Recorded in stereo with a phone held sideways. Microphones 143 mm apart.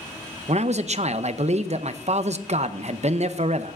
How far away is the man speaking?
About 0.5 m.